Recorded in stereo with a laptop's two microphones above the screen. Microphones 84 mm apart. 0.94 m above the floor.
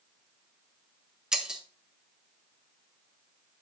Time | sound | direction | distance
1.3 | breaking glass | 10° right (ahead or behind) | 1.5 m